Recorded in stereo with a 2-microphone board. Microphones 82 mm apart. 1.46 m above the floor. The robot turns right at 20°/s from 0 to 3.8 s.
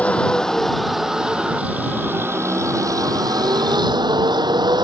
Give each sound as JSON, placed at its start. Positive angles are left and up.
{"t": 0.0, "sound": "a vehicle", "azimuth_deg": 165}